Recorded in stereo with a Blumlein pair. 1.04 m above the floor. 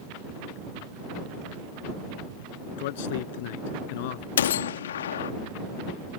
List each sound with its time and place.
2.8 s a man speaking: 50° left
4.4 s a gunshot: 60° left